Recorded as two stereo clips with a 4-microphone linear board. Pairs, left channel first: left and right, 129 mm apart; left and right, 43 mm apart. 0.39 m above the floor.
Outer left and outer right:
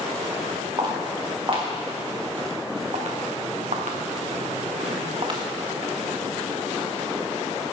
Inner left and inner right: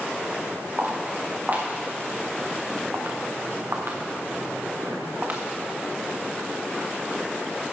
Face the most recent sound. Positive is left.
turn(degrees=-40)  # may be behind; listen again after turning